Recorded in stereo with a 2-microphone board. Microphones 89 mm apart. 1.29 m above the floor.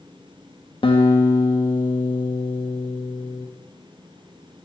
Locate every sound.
0.8 s a guitar: 70° left (ahead or behind), 1.2 m